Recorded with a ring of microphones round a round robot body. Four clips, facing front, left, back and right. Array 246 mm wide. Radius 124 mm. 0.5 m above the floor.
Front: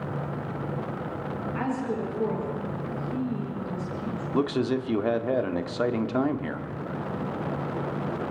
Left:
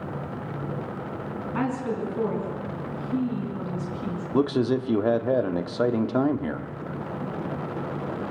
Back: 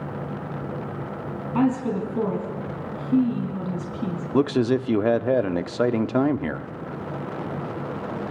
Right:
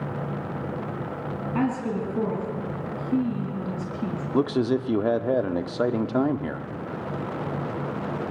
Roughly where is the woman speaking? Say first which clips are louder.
Right 1 dB, back 8 dB; behind right.